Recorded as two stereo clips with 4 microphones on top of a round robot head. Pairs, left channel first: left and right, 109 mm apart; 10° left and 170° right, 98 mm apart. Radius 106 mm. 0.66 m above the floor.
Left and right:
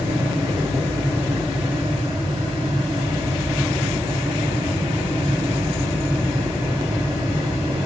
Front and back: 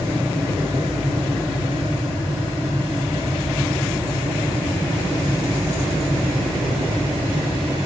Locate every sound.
Only background noise.